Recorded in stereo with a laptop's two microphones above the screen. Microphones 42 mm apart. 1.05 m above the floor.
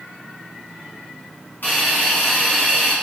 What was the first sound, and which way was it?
A hiss, 60° left (ahead or behind).